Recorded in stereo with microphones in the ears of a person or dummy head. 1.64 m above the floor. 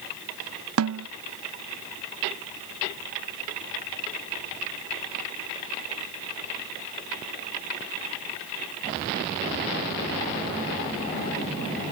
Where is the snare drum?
80° right.